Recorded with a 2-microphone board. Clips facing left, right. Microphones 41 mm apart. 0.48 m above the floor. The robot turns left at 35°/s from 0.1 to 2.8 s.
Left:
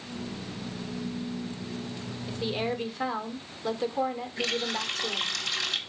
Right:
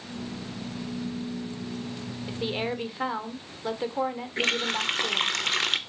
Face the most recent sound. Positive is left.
turn(degrees=-55)  # may be behind; listen again after turning